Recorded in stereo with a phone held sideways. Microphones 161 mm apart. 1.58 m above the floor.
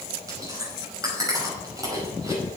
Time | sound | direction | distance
0.3 | chewing | 20° right (ahead or behind) | 5 m